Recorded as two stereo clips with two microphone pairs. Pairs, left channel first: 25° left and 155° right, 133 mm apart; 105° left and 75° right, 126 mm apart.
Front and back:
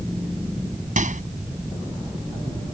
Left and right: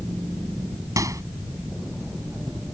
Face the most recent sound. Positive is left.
turn(degrees=-140)